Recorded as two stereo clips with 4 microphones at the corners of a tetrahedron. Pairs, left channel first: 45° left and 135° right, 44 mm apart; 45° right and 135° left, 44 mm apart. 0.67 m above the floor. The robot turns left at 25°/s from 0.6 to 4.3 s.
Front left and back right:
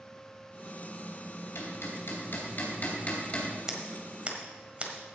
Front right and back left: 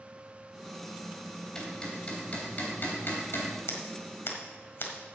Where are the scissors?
60° right, 1.6 m; by 5.2 s 75° right, 1.6 m.